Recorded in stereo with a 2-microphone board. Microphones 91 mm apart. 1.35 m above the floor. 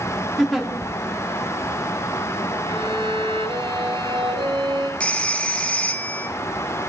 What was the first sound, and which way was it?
A giggle, centre (ahead or behind).